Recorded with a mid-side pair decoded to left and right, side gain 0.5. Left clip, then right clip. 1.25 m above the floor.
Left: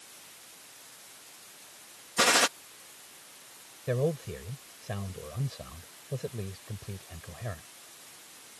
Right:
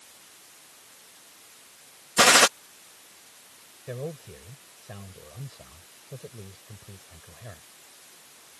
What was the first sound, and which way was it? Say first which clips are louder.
A gunshot: right 7 dB; 50° right.